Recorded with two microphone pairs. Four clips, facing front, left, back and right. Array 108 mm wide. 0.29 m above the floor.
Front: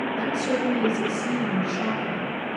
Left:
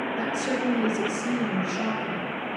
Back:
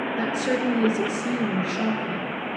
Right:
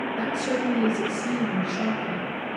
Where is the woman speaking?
175° right, 3.5 m.